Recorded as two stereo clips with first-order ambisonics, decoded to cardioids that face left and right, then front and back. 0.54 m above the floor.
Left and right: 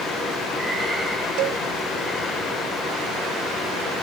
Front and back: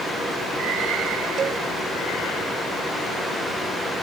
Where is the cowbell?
115° right.